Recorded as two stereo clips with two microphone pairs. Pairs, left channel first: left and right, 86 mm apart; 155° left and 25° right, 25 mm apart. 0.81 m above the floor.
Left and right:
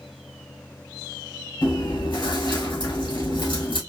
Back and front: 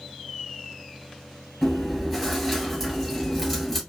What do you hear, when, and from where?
1.6 s chewing: 70° left, 2 m